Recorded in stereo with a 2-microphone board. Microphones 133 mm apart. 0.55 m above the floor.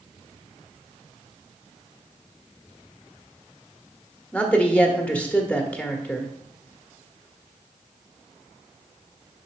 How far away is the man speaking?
About 1.2 m.